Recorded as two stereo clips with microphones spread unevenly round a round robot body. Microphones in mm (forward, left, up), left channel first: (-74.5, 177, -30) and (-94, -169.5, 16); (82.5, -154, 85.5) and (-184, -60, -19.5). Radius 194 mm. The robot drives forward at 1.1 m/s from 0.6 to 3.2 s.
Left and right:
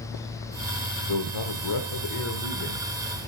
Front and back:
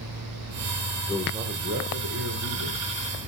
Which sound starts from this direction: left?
A man speaking, at 1.1 s.